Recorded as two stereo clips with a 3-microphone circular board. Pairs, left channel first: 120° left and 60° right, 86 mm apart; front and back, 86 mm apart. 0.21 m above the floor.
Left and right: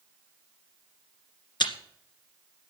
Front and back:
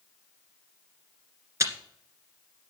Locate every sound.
1.6 s chewing: 130° left, 1.9 m